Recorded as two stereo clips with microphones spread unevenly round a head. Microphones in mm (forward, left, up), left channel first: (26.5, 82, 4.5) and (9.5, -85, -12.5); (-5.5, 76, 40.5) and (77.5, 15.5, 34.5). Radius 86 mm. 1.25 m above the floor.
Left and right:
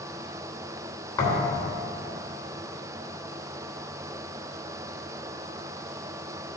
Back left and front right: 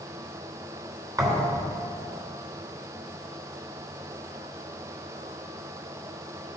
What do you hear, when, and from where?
1.2 s a thud: 20° left, 3 m